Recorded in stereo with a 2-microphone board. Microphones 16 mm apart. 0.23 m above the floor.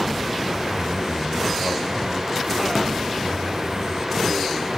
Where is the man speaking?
25° right (ahead or behind), 1.1 m; by 4.7 s centre (ahead or behind), 3 m.